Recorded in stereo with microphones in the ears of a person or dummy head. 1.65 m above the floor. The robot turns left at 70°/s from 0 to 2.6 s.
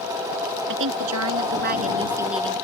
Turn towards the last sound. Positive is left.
turn(degrees=165)